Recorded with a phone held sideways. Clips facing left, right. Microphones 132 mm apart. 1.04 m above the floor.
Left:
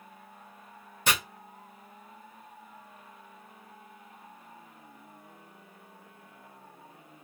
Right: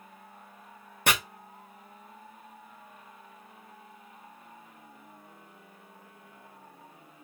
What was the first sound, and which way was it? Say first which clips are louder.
Chopping: right 2 dB; 55° right (ahead or behind).